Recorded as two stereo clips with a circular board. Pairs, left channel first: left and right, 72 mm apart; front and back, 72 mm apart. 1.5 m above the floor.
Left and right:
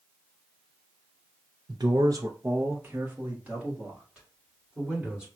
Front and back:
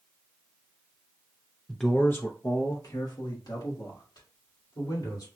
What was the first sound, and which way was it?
A man speaking, 95° right.